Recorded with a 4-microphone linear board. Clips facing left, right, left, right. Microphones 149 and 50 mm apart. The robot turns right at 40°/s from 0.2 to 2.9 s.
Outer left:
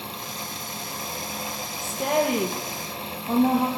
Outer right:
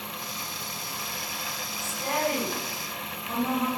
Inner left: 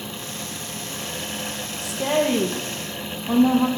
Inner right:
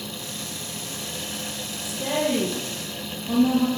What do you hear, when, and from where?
1.8 s a woman speaking: 80° left, 3.5 m; by 3.7 s 125° left, 3.5 m